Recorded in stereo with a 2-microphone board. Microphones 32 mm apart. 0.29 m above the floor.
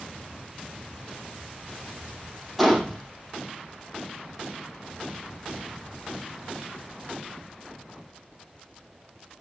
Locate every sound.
2.6 s a gunshot: centre (ahead or behind), 4.5 m